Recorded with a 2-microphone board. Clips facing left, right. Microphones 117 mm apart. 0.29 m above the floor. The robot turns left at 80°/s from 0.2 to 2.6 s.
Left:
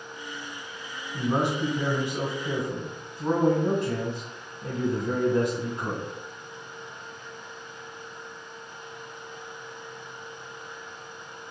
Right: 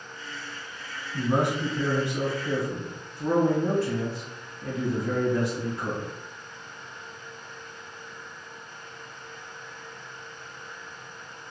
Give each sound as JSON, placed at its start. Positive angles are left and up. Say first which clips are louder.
{"t": 1.1, "sound": "a man speaking", "louder": "right 1 dB", "side_deg": 0, "distance_m": 1.5}